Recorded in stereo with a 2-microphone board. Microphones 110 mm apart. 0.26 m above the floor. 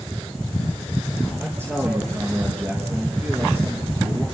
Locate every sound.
1.4 s a man speaking: 20° right (ahead or behind), 5 m